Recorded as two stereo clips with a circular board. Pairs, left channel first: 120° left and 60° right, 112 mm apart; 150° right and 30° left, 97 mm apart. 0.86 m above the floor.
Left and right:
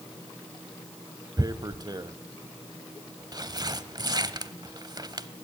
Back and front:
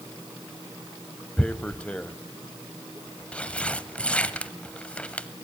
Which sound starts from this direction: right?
Tearing paper, at 1.4 s.